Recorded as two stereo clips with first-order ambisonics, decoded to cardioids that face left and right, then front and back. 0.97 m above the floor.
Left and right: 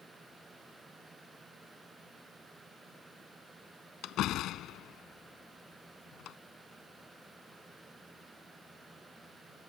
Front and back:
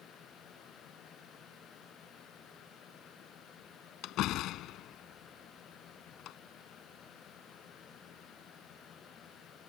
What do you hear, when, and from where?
4.0 s a door slam: 40° left